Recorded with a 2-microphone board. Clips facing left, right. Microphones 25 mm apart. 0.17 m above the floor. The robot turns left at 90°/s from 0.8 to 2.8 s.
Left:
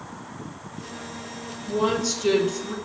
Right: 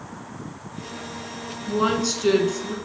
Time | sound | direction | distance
1.7 | a woman speaking | 100° right | 1.5 m